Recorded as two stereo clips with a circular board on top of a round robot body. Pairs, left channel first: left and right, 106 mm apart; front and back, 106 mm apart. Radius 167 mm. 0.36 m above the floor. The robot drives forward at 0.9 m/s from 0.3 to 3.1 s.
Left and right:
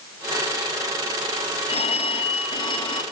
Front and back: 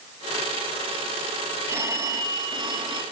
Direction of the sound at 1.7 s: 115° left.